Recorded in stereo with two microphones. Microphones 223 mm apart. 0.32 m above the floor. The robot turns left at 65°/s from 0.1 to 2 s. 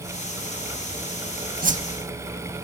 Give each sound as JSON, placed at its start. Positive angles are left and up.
{"t": 1.6, "sound": "a whoosh", "side_deg": -40, "distance_m": 0.5}